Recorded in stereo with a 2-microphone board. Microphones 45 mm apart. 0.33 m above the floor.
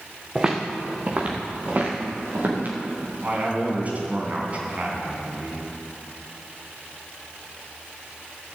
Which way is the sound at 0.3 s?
15° right (ahead or behind).